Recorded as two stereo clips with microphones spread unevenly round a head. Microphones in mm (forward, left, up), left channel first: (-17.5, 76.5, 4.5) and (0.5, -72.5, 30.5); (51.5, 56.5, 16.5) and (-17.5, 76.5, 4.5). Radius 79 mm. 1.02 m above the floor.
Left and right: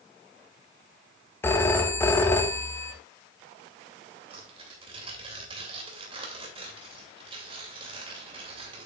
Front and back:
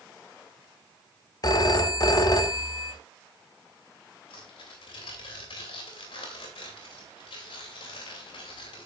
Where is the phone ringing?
20° left, 1.1 m.